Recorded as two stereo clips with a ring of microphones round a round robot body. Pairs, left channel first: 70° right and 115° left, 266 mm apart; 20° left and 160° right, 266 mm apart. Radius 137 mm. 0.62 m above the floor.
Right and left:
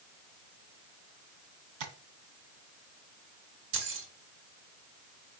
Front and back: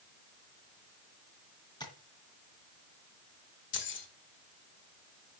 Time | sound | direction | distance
1.8 | tapping | 100° left | 2 m
3.7 | keys jangling | 70° left | 1.8 m